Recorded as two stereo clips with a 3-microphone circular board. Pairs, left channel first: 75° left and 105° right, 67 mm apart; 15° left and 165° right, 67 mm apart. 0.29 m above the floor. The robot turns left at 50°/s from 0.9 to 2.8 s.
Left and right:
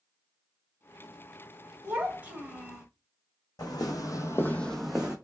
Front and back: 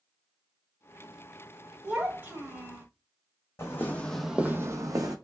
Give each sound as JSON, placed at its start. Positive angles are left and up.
{"t": 1.8, "sound": "a child speaking", "azimuth_deg": -125, "distance_m": 0.9}
{"t": 3.6, "sound": "footsteps", "azimuth_deg": 65, "distance_m": 0.9}